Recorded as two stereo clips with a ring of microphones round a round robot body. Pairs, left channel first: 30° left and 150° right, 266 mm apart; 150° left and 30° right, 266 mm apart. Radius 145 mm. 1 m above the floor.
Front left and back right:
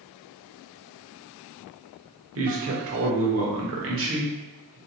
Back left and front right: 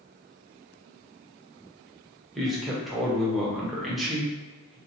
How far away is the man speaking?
About 1.1 m.